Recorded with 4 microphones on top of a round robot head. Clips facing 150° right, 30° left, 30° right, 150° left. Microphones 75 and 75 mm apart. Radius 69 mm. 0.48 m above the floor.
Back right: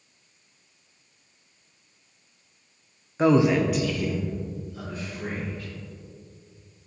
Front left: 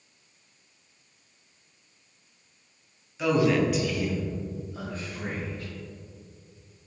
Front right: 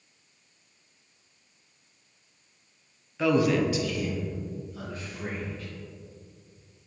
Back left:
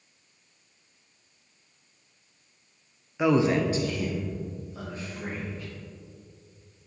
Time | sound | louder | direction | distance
3.2 | a man speaking | back right 3 dB, back left 1 dB | 145° right | 0.9 m